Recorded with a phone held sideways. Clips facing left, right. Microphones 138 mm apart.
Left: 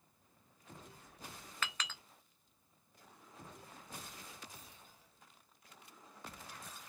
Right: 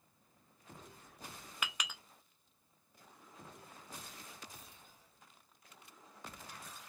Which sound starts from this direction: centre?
A clink, at 1.6 s.